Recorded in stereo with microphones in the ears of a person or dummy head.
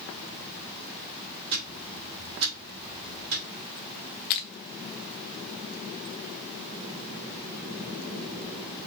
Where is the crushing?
40° left (ahead or behind), 0.9 m.